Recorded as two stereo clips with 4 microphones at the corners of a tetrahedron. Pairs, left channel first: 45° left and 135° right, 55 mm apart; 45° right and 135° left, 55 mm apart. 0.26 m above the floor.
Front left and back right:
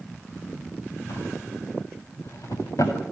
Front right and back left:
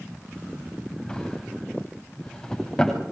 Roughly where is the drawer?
Ahead left.